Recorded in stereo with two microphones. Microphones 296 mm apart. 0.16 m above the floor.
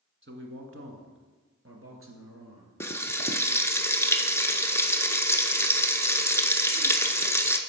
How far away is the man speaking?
About 1.3 m.